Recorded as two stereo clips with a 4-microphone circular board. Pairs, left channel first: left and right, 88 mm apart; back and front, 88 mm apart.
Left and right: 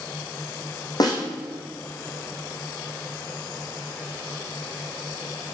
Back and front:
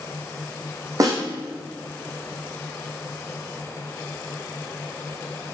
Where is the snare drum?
50° left, 4 m.